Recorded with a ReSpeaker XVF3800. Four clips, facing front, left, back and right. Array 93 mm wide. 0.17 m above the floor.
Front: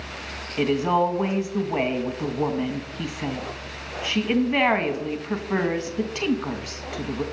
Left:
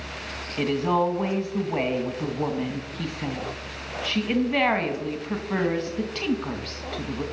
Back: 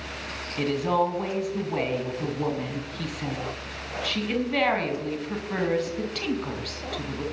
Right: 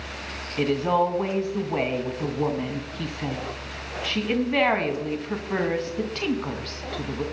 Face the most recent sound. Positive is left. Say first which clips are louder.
# right 1 dB, front 3 dB
turn(degrees=-10)